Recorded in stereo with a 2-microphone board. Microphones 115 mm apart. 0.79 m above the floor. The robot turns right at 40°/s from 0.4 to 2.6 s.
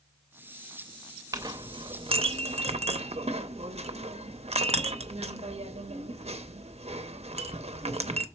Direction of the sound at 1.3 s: 30° right (ahead or behind).